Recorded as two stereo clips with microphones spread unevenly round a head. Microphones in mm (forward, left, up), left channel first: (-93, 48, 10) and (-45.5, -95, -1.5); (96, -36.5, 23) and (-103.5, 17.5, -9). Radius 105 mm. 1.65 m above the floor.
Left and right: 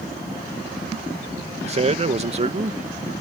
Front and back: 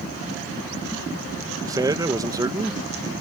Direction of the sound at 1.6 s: 120° right.